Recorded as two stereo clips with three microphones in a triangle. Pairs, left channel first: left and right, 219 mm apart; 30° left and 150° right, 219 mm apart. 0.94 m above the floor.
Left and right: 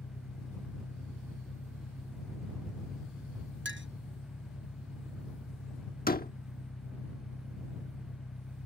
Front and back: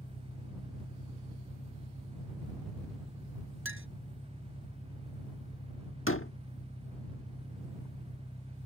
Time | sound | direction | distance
0.0 | an engine running | 90° left | ?
3.6 | a clink | 125° right | ?
6.1 | a door slam | 45° left | ?